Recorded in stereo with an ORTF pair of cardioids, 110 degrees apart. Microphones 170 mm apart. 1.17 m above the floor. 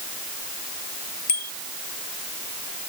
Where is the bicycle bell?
60° left.